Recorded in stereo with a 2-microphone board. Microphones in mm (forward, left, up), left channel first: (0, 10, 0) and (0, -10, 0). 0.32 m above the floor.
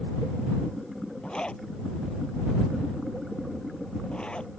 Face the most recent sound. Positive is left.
turn(degrees=65)  # may be behind; listen again after turning